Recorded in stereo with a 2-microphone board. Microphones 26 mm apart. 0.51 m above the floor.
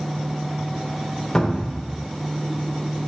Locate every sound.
1.4 s a cupboard door: 25° left (ahead or behind), 0.5 m